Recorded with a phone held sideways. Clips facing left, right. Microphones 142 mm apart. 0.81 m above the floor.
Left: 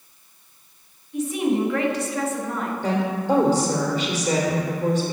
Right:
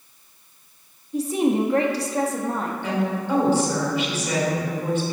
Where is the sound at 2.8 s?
40° left (ahead or behind), 2.5 m.